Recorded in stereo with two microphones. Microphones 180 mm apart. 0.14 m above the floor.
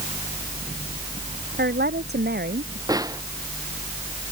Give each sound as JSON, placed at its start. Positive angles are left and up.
{"t": 1.6, "sound": "a woman speaking", "side_deg": -65}
{"t": 2.9, "sound": "a snare drum", "side_deg": -20}